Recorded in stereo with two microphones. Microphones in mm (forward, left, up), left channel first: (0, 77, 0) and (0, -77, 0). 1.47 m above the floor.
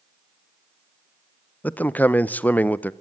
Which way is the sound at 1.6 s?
10° left (ahead or behind).